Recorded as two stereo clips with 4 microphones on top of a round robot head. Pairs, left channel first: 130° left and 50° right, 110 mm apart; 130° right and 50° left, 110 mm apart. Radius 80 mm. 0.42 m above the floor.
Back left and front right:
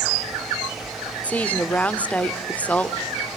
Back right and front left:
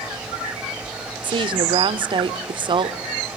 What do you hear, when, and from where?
1.2 s a woman speaking: 60° left, 1.0 m